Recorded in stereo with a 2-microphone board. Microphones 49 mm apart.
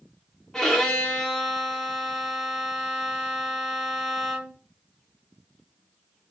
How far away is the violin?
About 0.9 m.